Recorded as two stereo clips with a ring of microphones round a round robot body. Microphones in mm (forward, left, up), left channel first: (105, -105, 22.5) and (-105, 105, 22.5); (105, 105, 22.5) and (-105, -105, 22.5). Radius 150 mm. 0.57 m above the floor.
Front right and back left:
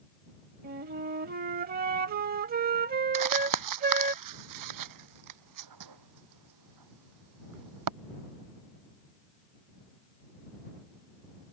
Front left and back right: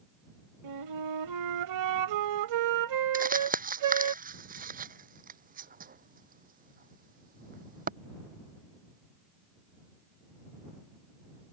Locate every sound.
0.6 s a flute: 165° right
3.1 s crumpling: 160° left